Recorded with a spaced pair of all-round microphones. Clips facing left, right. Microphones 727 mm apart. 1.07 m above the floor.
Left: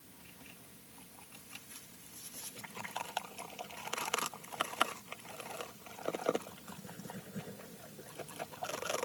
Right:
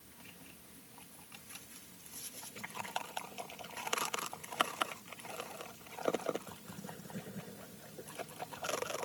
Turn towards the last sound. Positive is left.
No sound to turn to.